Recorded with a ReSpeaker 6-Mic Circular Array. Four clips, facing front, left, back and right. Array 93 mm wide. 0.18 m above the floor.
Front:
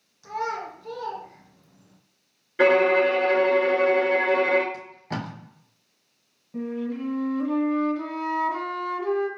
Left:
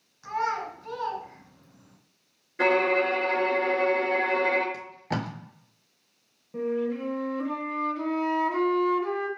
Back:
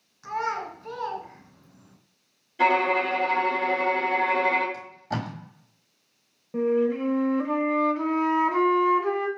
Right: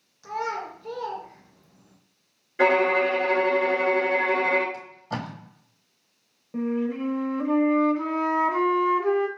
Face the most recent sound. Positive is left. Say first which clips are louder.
# right 1 dB, back 7 dB
turn(degrees=-155)